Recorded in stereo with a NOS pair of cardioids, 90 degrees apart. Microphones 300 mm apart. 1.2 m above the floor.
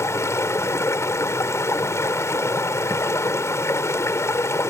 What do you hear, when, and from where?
0.0 s running water: 10° left